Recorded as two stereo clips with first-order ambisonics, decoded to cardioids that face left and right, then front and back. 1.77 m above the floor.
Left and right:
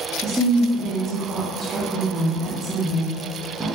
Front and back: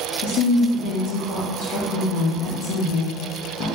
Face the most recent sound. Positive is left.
turn(degrees=-10)